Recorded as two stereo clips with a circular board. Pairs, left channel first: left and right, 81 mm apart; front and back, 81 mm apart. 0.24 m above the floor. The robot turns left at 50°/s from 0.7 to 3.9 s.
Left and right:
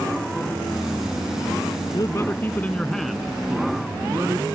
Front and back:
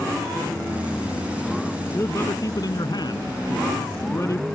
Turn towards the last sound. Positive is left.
turn(degrees=-40)